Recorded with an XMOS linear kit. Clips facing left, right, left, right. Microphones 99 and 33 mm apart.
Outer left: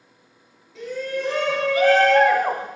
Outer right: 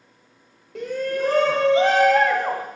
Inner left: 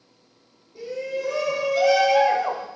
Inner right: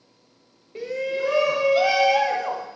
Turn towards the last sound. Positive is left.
turn(degrees=25)  # may be behind; listen again after turning